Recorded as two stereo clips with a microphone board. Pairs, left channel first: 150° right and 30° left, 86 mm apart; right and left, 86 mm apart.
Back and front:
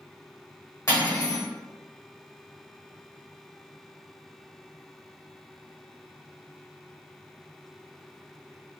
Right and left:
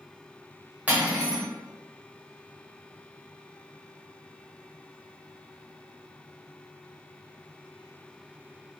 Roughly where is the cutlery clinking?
Behind.